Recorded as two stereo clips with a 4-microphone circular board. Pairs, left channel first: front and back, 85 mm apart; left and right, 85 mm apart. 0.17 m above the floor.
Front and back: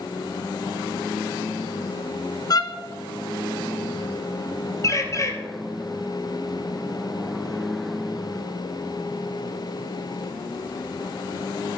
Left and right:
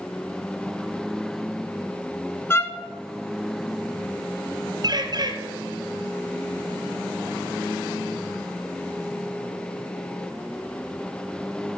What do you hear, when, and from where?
2.5 s a violin: 30° left, 0.8 m
4.8 s a bird: 55° right, 1.2 m